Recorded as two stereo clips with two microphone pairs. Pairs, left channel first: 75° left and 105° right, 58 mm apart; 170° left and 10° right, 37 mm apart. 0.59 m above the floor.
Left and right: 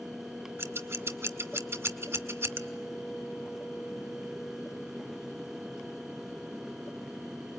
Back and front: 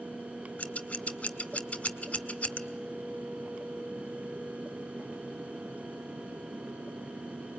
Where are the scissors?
140° right, 1.4 m.